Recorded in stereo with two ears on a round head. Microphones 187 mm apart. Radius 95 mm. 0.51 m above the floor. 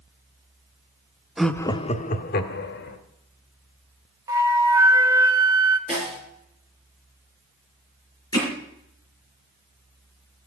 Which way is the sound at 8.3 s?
15° left (ahead or behind).